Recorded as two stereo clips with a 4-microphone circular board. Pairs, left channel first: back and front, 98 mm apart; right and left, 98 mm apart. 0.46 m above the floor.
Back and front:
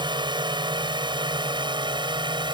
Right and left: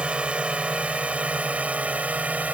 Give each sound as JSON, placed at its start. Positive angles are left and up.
{"t": 0.0, "sound": "a drone", "azimuth_deg": 15}